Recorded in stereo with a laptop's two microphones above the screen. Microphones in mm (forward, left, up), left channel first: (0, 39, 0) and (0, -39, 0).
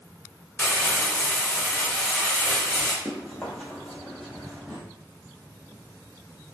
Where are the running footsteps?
10° left (ahead or behind), 1.2 m; by 4.8 s centre (ahead or behind), 1.8 m.